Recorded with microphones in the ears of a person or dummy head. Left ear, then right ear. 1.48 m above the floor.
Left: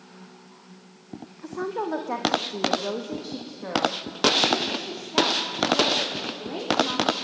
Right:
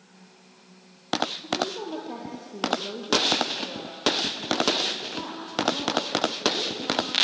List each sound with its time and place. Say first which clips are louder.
1.4 s a woman speaking: right 1 dB; 40° left (ahead or behind), 1.4 m; by 7.2 s 90° left, 5 m